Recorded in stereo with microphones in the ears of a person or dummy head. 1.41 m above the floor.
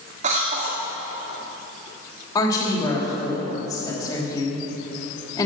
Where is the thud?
No thud in this recording.